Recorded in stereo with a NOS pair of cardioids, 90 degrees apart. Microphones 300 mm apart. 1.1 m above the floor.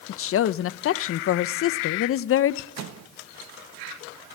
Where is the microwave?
60° right, 1.1 m.